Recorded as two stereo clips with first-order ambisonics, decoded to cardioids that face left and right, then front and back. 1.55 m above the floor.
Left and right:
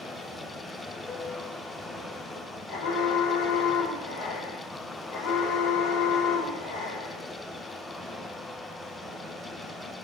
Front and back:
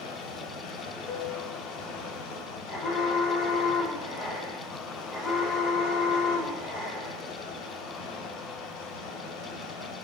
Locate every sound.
0.0 s running water: 10° left, 5 m
1.1 s a piano: 5° right, 3 m
2.7 s an alarm: 65° left, 9.5 m